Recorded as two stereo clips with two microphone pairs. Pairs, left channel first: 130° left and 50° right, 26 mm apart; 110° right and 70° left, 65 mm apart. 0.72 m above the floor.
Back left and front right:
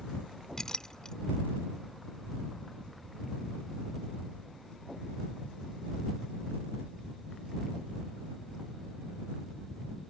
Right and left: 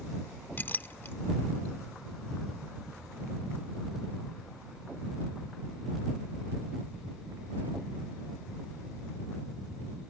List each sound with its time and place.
0.6 s a clink: 165° right